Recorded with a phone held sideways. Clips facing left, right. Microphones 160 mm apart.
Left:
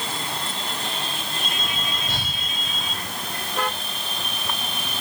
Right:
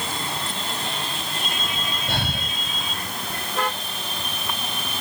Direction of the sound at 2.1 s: 60° right (ahead or behind).